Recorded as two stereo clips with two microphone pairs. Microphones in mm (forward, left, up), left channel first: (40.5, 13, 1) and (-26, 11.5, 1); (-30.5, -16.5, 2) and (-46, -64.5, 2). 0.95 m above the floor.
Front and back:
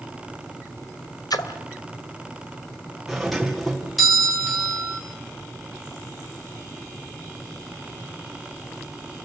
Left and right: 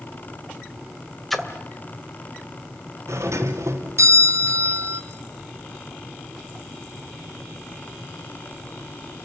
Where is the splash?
15° right, 2.0 m.